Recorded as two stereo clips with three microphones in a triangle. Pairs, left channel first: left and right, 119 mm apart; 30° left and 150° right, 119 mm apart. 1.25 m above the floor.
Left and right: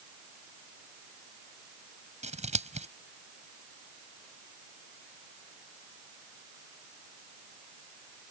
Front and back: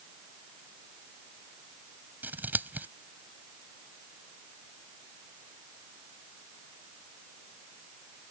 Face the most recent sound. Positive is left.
turn(degrees=-75)